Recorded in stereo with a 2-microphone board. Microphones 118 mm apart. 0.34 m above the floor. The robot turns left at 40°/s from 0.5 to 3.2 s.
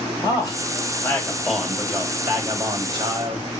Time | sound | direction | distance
0.2 | a man speaking | 45° left | 1.5 m